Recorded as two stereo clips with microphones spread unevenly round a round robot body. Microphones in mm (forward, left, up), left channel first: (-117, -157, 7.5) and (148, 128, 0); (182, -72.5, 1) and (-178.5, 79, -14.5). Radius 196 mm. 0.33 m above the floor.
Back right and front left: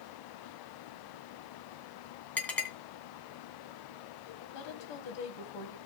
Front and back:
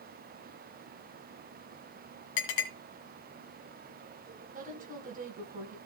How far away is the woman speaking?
About 2.5 m.